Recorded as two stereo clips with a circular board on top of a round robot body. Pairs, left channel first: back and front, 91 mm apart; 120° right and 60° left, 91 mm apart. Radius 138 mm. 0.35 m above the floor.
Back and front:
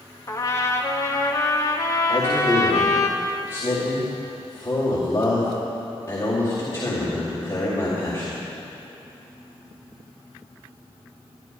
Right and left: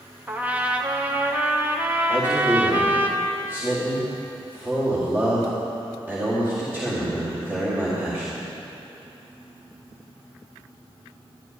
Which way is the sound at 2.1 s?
120° left.